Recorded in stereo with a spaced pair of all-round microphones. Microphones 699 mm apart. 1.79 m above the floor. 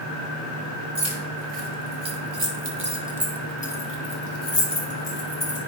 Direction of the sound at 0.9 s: 60° right (ahead or behind).